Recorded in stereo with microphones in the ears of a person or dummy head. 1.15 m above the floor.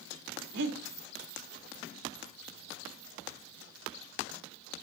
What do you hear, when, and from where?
0.5 s breathing: 70° right (ahead or behind), 1.3 m